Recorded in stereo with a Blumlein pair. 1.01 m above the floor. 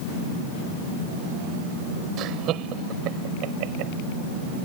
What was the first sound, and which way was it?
Laughter, 35° right.